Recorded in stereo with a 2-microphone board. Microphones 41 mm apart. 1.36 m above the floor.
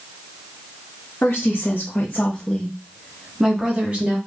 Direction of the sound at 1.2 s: 70° left (ahead or behind).